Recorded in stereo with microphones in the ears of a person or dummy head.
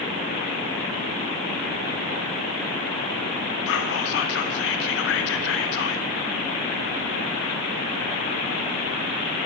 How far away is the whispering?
About 0.6 m.